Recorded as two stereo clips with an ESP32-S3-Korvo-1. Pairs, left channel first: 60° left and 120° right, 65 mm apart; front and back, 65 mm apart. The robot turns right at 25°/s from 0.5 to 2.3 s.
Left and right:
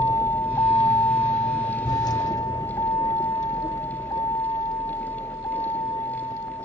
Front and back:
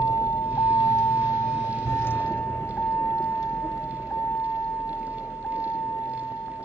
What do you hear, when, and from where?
0.0 s a vehicle: 35° left; by 6.7 s 50° left